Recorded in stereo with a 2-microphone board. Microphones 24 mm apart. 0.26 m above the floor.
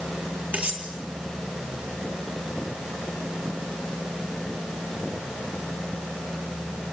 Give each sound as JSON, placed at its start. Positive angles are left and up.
{"t": 0.5, "sound": "cutlery clinking", "side_deg": -65, "distance_m": 3.5}